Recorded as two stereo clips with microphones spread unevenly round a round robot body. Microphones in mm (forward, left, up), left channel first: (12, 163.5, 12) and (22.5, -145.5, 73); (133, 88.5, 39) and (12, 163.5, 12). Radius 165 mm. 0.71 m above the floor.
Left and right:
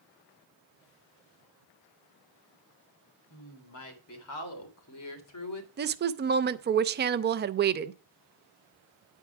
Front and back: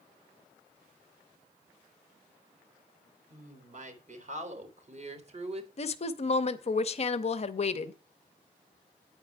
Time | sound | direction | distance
3.3 | a woman speaking | 135° left | 3.5 m
5.8 | a woman speaking | 35° right | 0.6 m